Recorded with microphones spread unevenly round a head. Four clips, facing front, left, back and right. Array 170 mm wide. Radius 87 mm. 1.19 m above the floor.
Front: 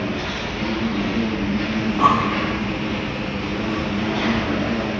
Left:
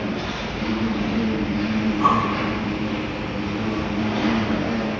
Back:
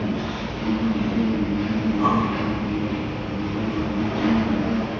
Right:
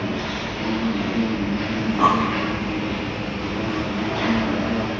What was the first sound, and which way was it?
An insect, 45° right.